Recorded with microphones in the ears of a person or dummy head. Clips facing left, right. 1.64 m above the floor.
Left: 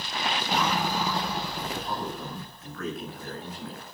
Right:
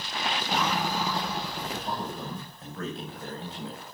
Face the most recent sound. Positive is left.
turn(degrees=-25)  # may be behind; listen again after turning